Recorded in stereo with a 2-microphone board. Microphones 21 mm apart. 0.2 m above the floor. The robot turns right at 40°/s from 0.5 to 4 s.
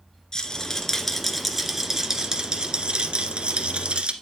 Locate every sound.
0.3 s a rattle: 145° left, 1.5 m; by 4.1 s 75° right, 1.5 m